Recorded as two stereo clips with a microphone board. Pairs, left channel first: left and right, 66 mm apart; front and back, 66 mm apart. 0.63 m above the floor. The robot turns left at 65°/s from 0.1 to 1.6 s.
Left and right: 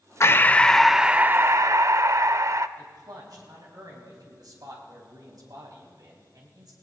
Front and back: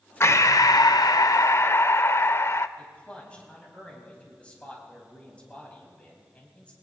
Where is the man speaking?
70° right, 4.5 m.